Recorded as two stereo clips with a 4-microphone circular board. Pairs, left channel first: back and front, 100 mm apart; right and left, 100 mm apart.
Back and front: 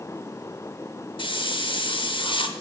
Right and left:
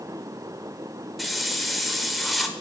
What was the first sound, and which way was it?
A hiss, straight behind.